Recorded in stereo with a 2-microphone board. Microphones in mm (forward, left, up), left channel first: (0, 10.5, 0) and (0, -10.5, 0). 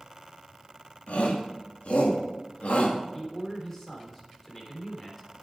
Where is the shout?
85° left, 2.5 m; by 3.0 s 70° left (ahead or behind), 2.5 m.